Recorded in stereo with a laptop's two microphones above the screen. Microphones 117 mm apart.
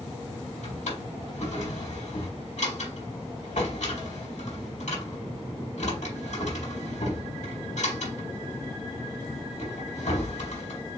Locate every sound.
0.6 s a drawer: 85° left, 4 m